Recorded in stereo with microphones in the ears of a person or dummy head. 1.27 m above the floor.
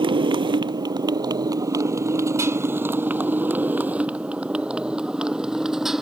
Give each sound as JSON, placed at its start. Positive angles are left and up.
{"t": 0.0, "sound": "a motorcycle", "side_deg": -30}